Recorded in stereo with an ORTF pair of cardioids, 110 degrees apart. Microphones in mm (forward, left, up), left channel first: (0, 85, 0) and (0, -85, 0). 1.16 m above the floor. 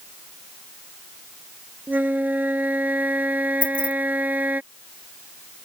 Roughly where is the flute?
Ahead.